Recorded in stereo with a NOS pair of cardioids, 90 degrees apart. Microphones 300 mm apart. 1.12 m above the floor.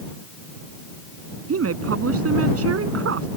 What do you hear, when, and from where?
1.5 s a woman speaking: 45° right